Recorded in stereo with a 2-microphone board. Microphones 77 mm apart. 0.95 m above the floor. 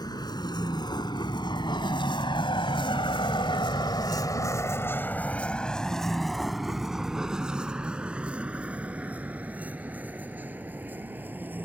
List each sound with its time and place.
0.0 s a vehicle: 55° left (ahead or behind); by 11.7 s 25° right (ahead or behind)